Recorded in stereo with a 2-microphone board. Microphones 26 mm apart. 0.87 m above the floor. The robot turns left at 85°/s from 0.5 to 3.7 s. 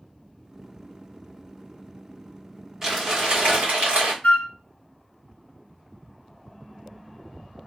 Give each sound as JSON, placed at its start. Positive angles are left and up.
{"t": 2.8, "sound": "crumpling", "azimuth_deg": -5, "distance_m": 1.8}
{"t": 4.2, "sound": "a flute", "side_deg": 90, "distance_m": 0.5}